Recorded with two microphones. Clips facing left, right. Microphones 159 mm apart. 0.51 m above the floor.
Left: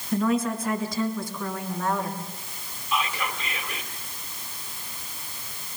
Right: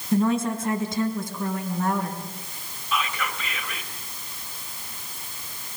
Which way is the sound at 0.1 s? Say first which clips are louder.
Right 2 dB; 30° right (ahead or behind).